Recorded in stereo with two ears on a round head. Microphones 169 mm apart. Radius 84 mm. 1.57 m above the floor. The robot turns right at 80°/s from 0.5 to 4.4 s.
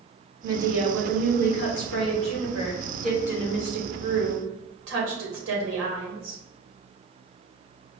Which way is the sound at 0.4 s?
30° right.